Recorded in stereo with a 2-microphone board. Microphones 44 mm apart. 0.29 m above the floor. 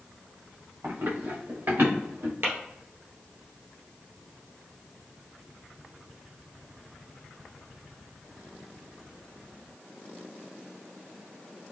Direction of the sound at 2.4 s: 70° right (ahead or behind).